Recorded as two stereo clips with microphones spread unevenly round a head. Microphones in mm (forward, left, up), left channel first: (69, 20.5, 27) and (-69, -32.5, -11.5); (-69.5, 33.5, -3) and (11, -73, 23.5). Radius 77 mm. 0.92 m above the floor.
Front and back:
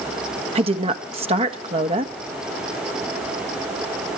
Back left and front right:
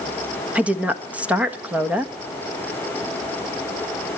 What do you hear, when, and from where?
0.6 s a woman speaking: 140° right, 1.4 m